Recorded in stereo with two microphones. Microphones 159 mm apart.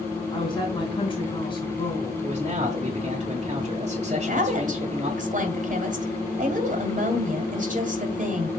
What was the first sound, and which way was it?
A woman speaking, 30° left (ahead or behind).